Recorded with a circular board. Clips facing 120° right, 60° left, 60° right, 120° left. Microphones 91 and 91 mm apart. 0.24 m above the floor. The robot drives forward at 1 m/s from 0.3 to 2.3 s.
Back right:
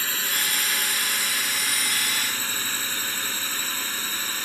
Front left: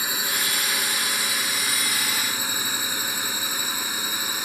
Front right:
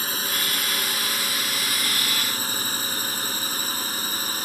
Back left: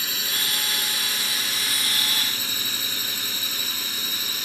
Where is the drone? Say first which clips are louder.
Front left 1 dB, front right 3 dB; 15° right.